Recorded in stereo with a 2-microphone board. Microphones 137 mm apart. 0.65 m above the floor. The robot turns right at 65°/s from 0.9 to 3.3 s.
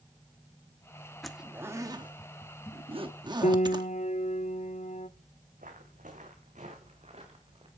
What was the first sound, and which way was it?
A zipper, centre (ahead or behind).